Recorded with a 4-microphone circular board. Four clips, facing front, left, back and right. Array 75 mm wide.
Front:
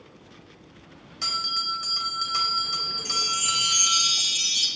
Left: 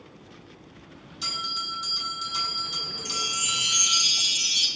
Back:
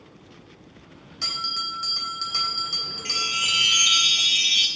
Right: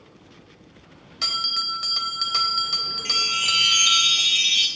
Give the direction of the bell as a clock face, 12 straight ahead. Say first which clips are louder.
Right 4 dB, front 1 dB; 3 o'clock.